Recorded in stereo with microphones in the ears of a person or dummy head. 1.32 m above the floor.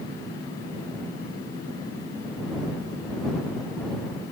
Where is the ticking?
No ticking in this recording.